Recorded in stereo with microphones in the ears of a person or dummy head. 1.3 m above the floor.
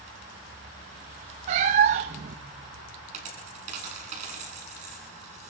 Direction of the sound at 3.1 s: 40° right (ahead or behind).